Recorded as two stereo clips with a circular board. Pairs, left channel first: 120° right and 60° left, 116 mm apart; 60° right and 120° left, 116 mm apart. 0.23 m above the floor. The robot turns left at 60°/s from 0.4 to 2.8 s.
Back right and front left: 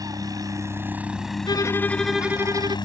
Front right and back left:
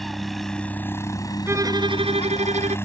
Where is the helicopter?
30° left; by 2.9 s 115° right.